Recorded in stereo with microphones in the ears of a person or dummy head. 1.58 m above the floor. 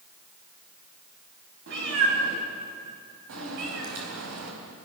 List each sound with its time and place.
1.7 s a cat meowing: 65° right (ahead or behind), 6 m; by 4.9 s 80° right, 5 m